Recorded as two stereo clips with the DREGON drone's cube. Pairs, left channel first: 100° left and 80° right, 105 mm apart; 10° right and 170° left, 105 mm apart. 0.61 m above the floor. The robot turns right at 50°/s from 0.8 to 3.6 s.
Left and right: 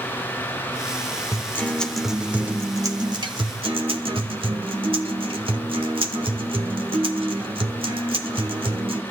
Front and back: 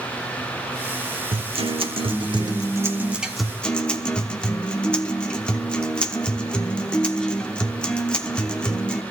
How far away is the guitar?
About 1.1 m.